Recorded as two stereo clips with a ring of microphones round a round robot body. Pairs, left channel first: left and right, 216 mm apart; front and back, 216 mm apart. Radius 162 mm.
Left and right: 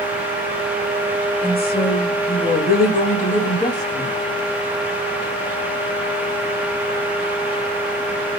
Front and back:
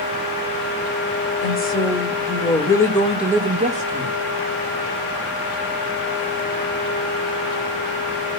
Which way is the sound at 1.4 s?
45° left.